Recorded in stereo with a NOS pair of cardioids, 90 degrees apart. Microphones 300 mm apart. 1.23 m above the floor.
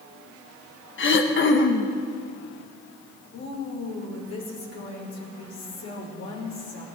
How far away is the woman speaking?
About 5 m.